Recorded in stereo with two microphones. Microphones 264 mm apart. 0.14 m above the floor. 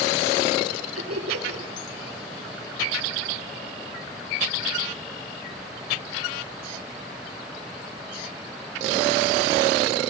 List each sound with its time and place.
0.9 s laughter: 65° right (ahead or behind), 3.5 m